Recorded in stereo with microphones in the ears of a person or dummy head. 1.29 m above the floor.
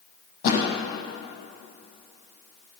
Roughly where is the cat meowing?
No cat meowing in this recording.